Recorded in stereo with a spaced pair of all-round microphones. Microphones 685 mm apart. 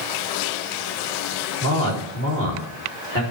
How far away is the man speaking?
About 3 m.